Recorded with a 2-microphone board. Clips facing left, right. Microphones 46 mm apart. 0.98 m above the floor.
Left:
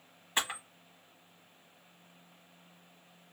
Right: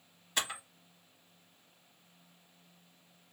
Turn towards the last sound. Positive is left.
turn(degrees=20)  # may be behind; listen again after turning